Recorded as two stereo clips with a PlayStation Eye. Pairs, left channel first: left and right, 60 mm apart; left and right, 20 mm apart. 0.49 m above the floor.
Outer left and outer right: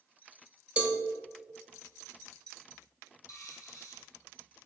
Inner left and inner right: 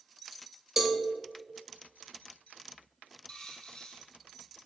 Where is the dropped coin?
75° left (ahead or behind), 1.6 m.